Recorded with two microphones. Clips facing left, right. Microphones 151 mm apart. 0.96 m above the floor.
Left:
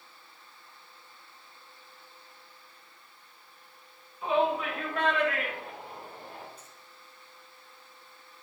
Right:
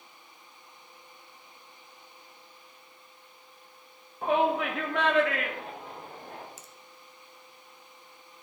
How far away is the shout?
About 1.3 m.